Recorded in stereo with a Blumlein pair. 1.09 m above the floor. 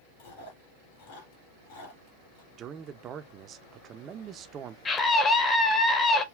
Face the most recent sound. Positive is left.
turn(degrees=20)